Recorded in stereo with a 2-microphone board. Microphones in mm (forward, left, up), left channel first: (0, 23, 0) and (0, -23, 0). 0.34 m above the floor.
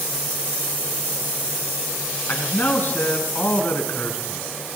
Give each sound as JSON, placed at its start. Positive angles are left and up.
{"t": 2.3, "sound": "a man speaking", "side_deg": 45, "distance_m": 4.0}